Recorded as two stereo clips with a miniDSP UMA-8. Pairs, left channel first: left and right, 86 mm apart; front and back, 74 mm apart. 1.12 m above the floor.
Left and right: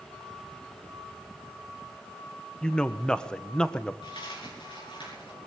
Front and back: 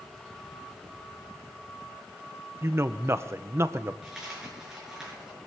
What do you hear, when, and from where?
2.6 s a man speaking: 165° left, 0.7 m
4.0 s a dropped coin: 95° left, 7 m